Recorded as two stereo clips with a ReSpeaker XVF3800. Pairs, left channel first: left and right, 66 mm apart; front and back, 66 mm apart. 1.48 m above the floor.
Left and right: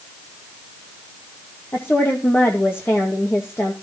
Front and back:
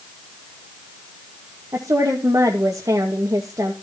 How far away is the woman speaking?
About 2.5 m.